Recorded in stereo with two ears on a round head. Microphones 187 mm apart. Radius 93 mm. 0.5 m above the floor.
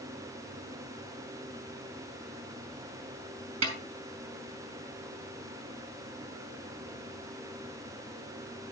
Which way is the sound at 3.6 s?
75° right (ahead or behind).